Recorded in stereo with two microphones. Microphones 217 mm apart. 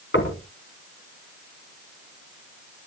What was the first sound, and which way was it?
Knocking, 60° left (ahead or behind).